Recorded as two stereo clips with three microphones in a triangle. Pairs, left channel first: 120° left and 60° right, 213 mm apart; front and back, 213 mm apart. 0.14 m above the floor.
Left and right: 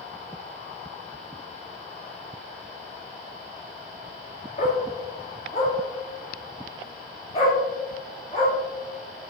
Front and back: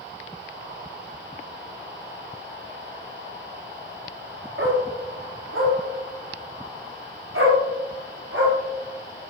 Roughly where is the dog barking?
Behind.